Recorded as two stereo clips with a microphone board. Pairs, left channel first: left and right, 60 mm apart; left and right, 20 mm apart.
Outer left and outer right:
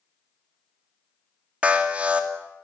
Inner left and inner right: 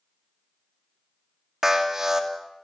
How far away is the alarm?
About 2.5 m.